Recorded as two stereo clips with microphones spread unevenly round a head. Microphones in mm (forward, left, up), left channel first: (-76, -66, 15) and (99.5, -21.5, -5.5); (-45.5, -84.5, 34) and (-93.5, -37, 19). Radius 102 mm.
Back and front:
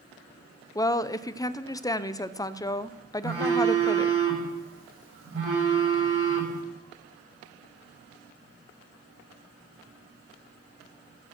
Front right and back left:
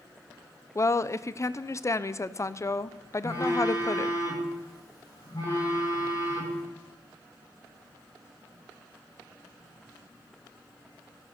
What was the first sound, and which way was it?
A woman speaking, 95° right.